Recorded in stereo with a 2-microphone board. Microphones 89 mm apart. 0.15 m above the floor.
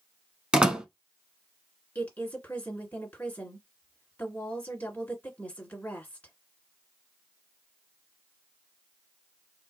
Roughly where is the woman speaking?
Centre.